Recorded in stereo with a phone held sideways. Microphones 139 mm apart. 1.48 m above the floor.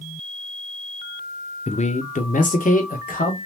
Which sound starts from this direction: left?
A man speaking, at 1.7 s.